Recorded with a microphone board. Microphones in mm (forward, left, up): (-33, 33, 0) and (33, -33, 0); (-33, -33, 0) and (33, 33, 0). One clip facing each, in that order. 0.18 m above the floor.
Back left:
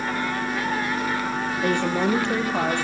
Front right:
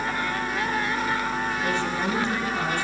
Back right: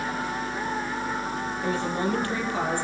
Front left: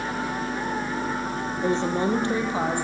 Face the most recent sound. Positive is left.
turn(degrees=120)